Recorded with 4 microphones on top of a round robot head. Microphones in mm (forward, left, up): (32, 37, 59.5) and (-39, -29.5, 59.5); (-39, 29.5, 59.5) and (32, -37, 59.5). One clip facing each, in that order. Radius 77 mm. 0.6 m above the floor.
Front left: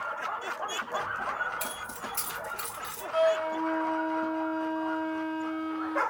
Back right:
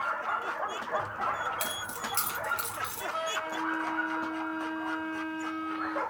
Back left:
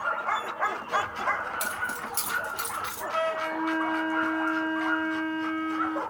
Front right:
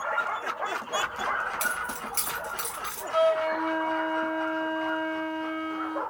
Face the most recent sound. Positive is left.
turn(degrees=20)